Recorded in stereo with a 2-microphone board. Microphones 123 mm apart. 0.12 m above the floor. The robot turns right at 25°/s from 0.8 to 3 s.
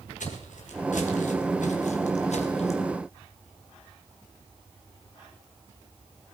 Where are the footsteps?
85° left, 3.5 m; by 2.8 s 60° left (ahead or behind), 2.5 m.